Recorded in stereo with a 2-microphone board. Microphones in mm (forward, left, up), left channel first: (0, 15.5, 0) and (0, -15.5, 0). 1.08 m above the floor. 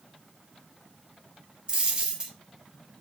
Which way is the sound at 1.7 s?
35° right (ahead or behind).